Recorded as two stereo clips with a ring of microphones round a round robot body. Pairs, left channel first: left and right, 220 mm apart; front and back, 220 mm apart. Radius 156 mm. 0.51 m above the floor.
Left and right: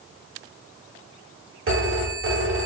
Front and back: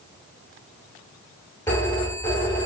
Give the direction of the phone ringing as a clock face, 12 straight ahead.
3 o'clock.